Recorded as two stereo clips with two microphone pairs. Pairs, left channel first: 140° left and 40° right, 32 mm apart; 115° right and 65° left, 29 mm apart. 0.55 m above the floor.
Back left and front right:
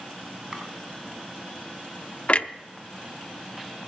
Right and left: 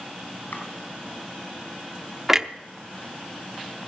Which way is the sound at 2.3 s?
145° left.